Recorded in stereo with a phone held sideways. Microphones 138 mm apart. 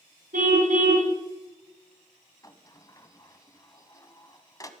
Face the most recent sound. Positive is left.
turn(degrees=25)  # may be behind; listen again after turning